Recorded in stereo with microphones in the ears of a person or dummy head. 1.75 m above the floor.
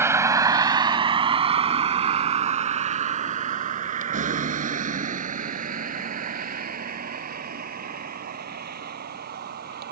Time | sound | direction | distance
0.0 | a vehicle | 15° right (ahead or behind) | ?